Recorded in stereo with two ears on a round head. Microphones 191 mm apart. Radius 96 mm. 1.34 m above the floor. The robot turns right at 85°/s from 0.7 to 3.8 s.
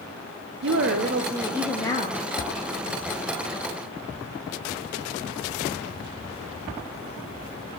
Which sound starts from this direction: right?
A woman speaking, at 0.6 s.